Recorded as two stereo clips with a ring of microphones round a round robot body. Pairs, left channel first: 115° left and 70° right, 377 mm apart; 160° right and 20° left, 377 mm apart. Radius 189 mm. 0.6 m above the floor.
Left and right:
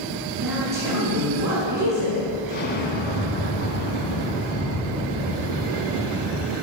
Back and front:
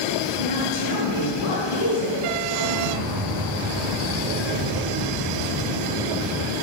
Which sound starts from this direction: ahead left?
An explosion, at 2.5 s.